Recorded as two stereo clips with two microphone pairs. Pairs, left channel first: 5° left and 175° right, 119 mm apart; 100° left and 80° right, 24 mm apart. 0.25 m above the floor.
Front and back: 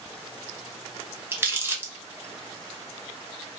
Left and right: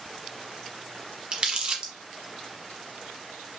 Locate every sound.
1.3 s crumpling: 110° right, 0.8 m